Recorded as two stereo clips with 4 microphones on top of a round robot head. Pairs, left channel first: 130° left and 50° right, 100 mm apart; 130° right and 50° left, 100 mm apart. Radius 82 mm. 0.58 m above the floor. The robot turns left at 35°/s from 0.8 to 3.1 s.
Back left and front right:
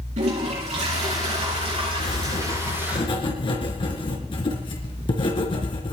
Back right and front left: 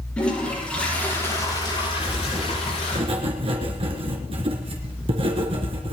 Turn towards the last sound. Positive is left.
turn(degrees=85)